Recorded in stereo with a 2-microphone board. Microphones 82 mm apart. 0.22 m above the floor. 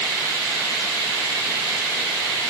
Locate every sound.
Only background noise.